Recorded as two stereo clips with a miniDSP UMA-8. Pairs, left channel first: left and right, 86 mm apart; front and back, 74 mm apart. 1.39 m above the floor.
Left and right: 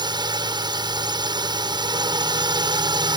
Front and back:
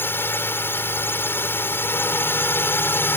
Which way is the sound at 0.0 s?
60° right.